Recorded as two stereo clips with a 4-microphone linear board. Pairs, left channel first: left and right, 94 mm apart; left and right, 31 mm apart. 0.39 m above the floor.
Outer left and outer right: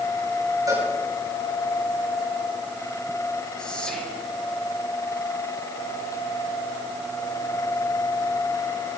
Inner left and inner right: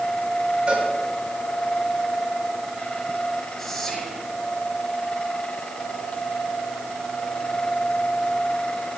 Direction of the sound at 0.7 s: 40° right (ahead or behind).